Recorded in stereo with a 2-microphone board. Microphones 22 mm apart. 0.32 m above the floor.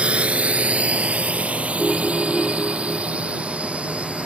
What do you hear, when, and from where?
0.0 s a drone: 60° right (ahead or behind); by 4.3 s 65° right (ahead or behind)
1.8 s a ringtone: 15° right (ahead or behind)